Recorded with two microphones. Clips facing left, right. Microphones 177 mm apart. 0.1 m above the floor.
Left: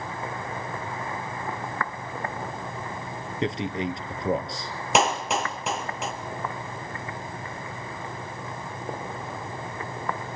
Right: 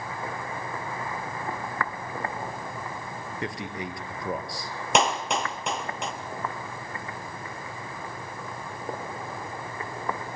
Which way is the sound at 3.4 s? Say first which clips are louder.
Left 7 dB; 20° left (ahead or behind).